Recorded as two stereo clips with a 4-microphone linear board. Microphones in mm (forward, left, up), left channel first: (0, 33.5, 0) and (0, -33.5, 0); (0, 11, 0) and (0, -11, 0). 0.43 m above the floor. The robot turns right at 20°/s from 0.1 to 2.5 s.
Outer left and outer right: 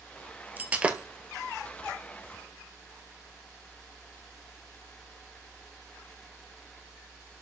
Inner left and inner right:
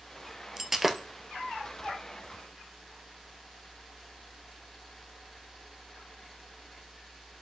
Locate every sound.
0.6 s breaking glass: 25° right (ahead or behind), 1.1 m; by 1.1 s 15° right (ahead or behind), 1.1 m